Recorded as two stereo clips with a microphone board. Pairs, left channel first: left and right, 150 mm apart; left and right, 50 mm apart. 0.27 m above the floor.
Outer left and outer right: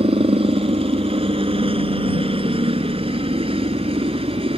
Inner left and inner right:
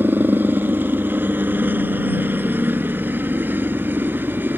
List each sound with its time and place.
0.0 s a helicopter: 40° right (ahead or behind)